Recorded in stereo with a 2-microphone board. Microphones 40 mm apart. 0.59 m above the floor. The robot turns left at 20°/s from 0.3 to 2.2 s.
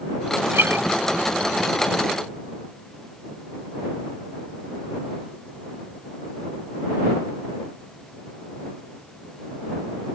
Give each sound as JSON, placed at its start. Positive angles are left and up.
{"t": 0.5, "sound": "a guitar", "side_deg": -70}